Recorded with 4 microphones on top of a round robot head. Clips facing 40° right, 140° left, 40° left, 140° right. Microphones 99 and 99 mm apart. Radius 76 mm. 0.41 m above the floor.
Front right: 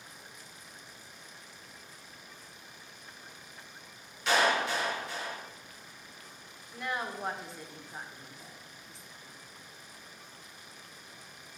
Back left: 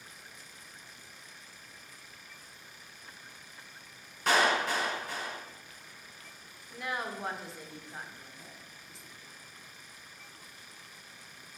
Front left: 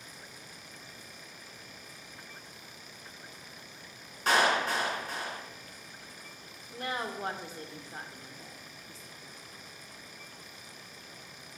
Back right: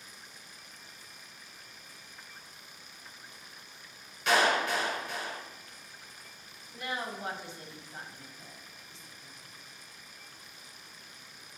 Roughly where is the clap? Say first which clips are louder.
Even, even; left.